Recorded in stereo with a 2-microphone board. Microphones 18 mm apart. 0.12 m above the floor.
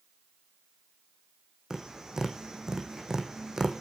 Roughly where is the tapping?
Right.